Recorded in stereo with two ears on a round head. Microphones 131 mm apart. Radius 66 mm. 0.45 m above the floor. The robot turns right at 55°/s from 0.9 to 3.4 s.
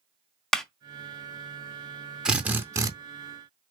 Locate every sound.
0.5 s a clap: 5° left (ahead or behind), 0.5 m
2.2 s a drill: 170° right, 0.5 m; by 2.9 s 135° right, 0.5 m